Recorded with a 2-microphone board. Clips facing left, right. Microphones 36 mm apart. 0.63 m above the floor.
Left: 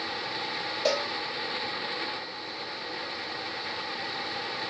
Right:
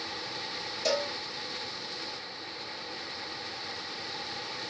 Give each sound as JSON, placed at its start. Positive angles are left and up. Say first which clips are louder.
{"t": 0.8, "sound": "a cowbell", "louder": "left 2 dB", "side_deg": 25, "distance_m": 1.4}